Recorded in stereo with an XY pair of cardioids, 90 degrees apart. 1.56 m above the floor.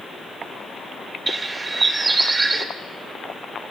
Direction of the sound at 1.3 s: 30° right.